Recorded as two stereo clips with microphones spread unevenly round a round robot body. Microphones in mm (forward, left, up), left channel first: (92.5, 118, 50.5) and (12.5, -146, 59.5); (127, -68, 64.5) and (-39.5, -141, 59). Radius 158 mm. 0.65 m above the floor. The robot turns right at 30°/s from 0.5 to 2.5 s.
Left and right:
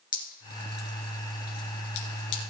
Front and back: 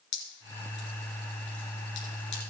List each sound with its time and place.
0.1 s dripping: 15° left, 2.5 m; by 2.4 s 70° left, 2.5 m